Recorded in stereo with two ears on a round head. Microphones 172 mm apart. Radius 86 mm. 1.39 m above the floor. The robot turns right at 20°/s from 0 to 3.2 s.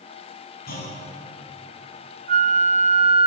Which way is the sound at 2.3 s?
50° right (ahead or behind).